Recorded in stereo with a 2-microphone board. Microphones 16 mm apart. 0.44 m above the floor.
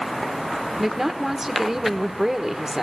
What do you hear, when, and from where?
0.8 s a woman speaking: 25° right (ahead or behind), 1.3 m